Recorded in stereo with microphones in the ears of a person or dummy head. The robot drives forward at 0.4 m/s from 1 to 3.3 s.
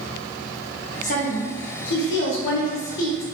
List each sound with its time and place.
1.0 s a woman speaking: 50° left (ahead or behind), 1.0 m; by 3.2 s 65° left (ahead or behind), 0.9 m